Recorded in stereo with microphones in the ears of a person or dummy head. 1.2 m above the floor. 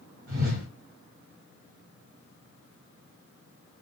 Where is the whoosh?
45° right (ahead or behind), 1.2 m.